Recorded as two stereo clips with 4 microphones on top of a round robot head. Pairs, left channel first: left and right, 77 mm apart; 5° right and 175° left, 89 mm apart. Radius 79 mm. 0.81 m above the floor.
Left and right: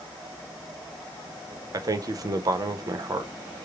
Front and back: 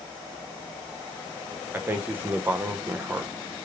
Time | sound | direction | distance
1.7 | a man speaking | 120° right | 0.7 m